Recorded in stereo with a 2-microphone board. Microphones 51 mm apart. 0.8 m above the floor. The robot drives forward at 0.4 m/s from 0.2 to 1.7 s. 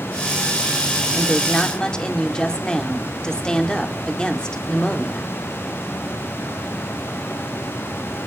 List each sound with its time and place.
1.1 s a woman speaking: 15° left (ahead or behind), 2 m